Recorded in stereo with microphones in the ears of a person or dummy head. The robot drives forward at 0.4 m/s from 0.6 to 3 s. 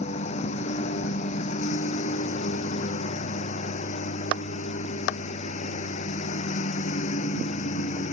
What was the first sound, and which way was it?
A lawn mower, 40° left (ahead or behind).